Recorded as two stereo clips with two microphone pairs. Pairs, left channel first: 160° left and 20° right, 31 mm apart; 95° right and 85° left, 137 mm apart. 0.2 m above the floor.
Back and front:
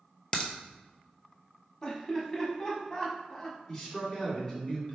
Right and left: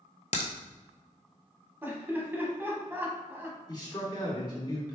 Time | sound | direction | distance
0.3 | a crack | 130° right | 0.9 m
1.8 | laughter | 135° left | 1.1 m
3.7 | a man speaking | 130° right | 2.0 m